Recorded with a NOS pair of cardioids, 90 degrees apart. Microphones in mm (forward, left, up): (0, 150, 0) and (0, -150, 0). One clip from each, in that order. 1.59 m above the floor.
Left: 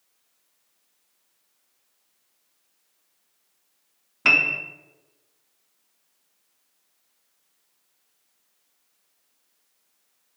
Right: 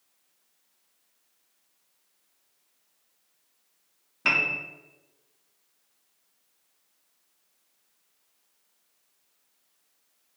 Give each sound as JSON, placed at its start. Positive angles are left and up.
{"t": 4.2, "sound": "a piano", "azimuth_deg": 20, "distance_m": 0.7}